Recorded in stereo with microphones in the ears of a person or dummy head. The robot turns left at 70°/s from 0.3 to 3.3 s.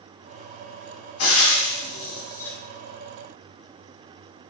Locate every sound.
1.2 s frying: 85° left, 0.7 m; by 2.6 s centre (ahead or behind), 0.7 m